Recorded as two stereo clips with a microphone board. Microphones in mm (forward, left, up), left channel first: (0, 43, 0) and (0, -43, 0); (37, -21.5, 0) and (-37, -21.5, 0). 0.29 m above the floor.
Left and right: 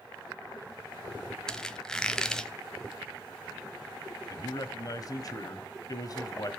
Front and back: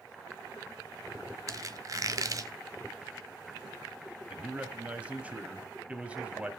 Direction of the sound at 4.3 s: 110° left.